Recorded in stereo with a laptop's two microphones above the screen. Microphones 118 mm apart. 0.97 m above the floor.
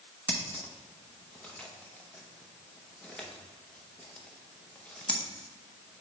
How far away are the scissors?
About 0.7 m.